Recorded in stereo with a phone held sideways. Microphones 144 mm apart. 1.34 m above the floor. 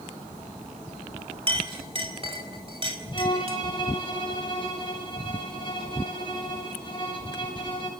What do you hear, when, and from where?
1.5 s a clink: 40° right (ahead or behind), 4 m
3.1 s a violin: 35° left (ahead or behind), 7 m